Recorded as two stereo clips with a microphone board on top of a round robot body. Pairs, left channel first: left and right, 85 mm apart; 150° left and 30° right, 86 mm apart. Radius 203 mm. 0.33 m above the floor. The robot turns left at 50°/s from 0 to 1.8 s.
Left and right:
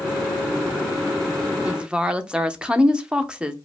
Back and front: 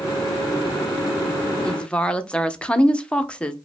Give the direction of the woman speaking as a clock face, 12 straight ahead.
5 o'clock.